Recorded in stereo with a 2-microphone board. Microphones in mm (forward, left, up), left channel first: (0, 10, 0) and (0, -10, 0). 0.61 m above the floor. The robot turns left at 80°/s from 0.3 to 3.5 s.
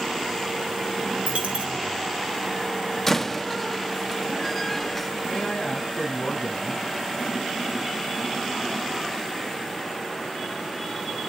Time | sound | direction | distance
1.3 | a dropped coin | 80° right | 7 m
3.1 | a door slam | 15° left (ahead or behind) | 0.7 m
5.3 | a man speaking | 70° left (ahead or behind) | 4 m